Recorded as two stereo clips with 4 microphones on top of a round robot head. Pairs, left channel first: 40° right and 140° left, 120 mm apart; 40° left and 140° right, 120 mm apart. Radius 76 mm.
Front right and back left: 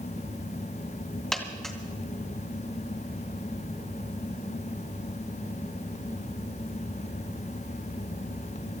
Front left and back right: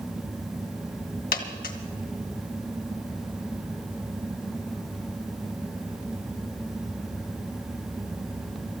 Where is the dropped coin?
45° left, 2.5 m.